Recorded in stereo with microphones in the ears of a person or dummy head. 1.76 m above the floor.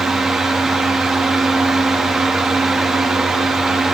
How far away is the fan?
About 0.8 m.